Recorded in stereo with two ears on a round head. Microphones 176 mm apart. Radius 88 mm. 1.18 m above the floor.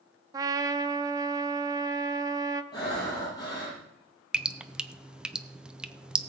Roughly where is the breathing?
Left.